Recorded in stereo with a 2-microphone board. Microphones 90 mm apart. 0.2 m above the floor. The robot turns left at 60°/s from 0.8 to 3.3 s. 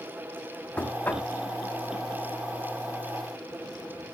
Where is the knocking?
15° left (ahead or behind), 0.9 m; by 1.3 s 20° left (ahead or behind), 0.9 m.